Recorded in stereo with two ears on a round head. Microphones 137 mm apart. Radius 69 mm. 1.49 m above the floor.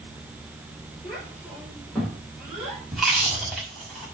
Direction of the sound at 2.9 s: Centre (ahead or behind).